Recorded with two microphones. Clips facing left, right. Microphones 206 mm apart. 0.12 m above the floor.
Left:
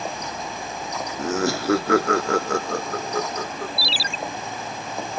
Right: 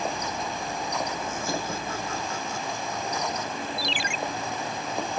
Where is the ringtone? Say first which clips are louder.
Even; 35° left (ahead or behind).